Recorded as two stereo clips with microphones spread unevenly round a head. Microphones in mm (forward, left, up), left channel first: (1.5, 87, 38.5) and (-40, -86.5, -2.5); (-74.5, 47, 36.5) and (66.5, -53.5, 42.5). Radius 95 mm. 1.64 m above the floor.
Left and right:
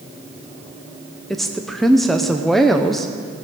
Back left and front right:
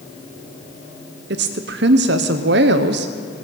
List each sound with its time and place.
1.3 s a woman speaking: 10° right, 0.8 m